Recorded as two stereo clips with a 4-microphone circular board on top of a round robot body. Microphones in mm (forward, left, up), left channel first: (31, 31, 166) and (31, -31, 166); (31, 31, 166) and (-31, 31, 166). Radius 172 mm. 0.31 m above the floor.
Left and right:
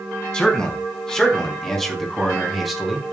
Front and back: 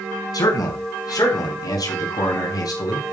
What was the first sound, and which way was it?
A man speaking, 15° left.